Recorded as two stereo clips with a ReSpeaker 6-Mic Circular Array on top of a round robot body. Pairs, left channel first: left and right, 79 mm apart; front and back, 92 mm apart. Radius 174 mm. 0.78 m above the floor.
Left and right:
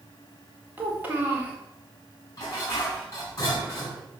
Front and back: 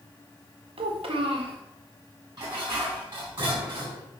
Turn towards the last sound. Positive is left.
turn(degrees=140)